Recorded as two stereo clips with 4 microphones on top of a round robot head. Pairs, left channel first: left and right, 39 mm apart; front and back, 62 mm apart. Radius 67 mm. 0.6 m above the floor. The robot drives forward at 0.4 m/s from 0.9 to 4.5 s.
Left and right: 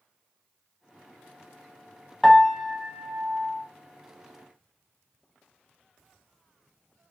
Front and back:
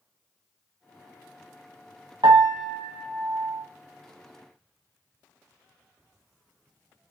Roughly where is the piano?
Behind.